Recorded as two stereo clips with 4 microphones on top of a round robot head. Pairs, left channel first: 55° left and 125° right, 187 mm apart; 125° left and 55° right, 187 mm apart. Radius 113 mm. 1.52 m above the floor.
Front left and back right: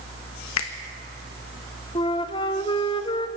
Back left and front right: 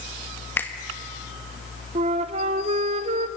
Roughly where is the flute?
Ahead.